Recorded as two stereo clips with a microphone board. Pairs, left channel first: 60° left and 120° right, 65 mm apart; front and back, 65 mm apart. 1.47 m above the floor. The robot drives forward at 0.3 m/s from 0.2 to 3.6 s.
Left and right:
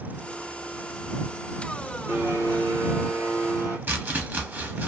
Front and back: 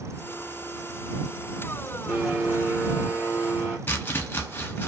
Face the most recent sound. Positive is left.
turn(degrees=-60)